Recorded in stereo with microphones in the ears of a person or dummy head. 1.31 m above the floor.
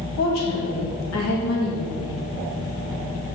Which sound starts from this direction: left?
A woman speaking, at 0.2 s.